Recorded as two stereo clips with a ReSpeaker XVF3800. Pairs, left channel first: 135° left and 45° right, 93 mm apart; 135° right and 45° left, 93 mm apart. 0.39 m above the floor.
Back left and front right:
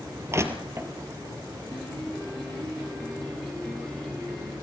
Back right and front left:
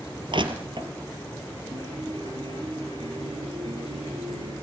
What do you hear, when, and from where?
0.3 s crushing: 15° left, 3 m
1.7 s a piano: 50° left, 7.5 m